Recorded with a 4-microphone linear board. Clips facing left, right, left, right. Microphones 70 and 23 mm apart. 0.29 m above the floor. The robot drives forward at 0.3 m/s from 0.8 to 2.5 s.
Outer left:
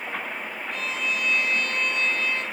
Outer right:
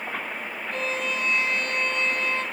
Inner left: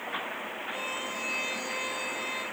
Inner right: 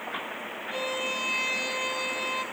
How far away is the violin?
About 2 m.